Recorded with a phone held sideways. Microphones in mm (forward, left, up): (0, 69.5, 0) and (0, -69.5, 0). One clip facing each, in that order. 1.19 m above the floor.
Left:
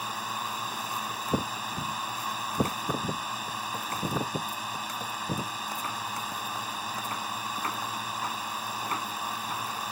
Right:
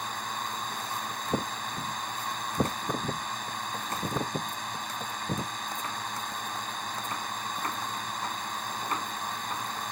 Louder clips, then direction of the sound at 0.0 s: Left 1 dB; 5° left (ahead or behind).